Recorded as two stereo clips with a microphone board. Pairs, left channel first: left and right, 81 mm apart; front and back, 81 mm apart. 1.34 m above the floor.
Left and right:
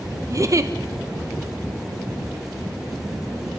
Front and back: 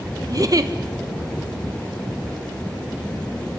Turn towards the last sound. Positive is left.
turn(degrees=-140)